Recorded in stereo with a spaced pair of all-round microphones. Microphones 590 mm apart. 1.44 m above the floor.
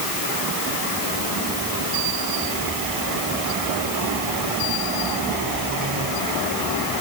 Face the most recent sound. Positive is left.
No sound to turn to.